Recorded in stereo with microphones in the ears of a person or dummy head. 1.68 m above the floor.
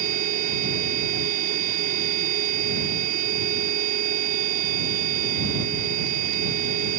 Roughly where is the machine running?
Right.